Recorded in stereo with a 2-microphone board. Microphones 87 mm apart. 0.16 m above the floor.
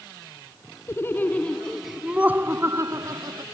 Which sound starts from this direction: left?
Laughter, at 0.9 s.